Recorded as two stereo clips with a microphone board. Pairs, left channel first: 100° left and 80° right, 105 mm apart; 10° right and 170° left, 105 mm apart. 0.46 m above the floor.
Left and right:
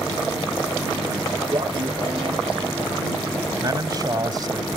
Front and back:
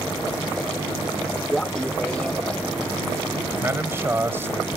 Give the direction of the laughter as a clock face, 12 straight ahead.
3 o'clock.